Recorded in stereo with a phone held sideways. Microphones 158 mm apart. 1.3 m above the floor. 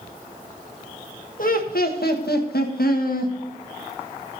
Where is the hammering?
No hammering in this recording.